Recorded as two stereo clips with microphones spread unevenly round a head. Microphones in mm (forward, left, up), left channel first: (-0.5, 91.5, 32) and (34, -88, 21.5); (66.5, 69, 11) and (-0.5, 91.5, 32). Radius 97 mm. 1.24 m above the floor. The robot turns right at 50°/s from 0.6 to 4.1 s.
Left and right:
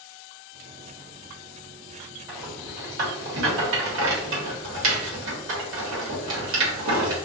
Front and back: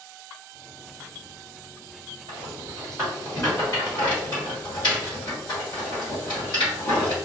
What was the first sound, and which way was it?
A rattle, 155° right.